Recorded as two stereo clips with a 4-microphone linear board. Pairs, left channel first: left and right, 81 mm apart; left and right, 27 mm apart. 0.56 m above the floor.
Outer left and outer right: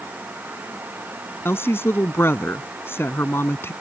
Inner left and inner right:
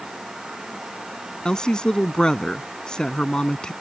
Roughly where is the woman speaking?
Left.